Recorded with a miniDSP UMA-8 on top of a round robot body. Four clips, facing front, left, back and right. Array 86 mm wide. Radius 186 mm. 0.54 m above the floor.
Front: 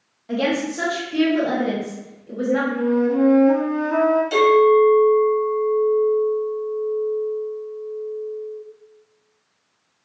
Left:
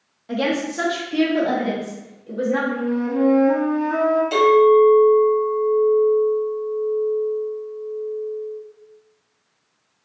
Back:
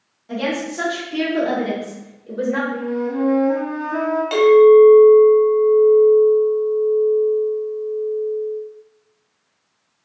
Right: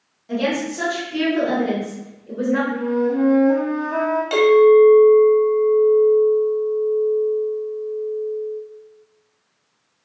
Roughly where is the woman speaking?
Ahead left.